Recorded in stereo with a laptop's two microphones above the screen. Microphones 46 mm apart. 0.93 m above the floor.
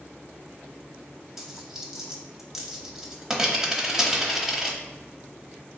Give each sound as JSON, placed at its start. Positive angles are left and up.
{"t": 1.4, "sound": "a dropped coin", "side_deg": -10, "distance_m": 0.8}